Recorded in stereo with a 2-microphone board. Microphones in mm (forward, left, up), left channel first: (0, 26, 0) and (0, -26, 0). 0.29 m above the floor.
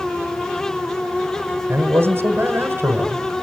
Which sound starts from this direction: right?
A man speaking, at 1.7 s.